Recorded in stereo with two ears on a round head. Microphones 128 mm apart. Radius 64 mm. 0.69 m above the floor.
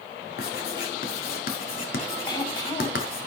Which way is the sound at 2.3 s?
35° left (ahead or behind).